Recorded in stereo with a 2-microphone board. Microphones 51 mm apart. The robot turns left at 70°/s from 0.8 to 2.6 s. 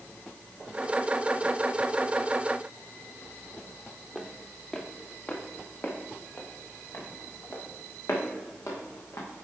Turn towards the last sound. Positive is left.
turn(degrees=65)  # may be behind; listen again after turning